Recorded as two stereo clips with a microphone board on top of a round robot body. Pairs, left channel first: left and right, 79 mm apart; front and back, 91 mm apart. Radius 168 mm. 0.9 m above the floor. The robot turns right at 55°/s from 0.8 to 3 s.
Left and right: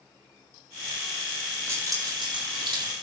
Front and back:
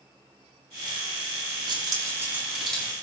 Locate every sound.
1.7 s keys jangling: 145° right, 8.5 m; by 3.0 s 75° right, 8.5 m